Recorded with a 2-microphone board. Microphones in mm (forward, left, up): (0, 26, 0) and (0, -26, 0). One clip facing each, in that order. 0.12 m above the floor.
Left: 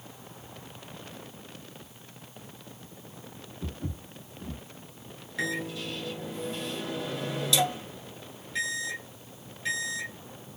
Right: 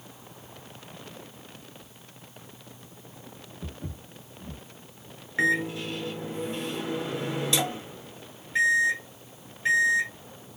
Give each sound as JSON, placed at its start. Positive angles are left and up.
{"t": 3.6, "sound": "footsteps", "side_deg": -5, "distance_m": 1.2}
{"t": 5.4, "sound": "a microwave", "side_deg": -35, "distance_m": 1.1}